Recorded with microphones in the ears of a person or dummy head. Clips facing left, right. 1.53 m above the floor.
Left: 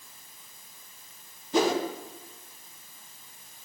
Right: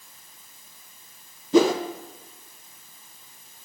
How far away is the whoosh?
About 1.1 m.